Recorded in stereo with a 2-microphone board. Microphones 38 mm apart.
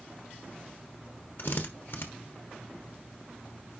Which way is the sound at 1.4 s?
65° left (ahead or behind).